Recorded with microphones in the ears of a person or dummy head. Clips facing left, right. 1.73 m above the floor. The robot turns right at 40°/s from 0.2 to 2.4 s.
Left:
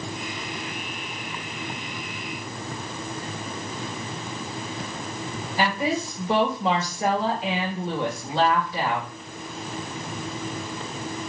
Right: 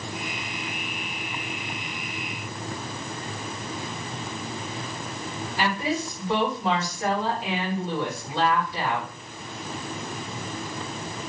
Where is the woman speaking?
70° left (ahead or behind), 3 m.